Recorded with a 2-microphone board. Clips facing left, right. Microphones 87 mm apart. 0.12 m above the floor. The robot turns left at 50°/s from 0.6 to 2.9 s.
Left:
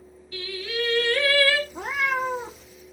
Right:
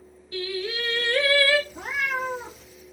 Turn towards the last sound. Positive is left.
turn(degrees=-10)